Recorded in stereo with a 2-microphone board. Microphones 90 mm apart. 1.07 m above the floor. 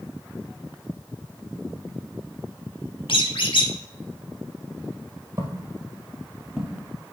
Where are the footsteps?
30° right (ahead or behind), 1.4 m; by 6.8 s 15° left (ahead or behind), 1.5 m.